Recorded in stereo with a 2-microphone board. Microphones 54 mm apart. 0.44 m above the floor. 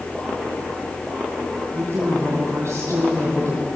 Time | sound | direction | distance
1.7 | a woman speaking | 65° right (ahead or behind) | 3.5 m